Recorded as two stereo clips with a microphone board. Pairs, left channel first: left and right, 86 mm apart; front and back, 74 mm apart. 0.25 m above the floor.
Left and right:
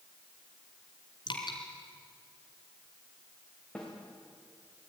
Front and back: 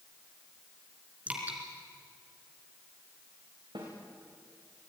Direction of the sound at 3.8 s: 170° left.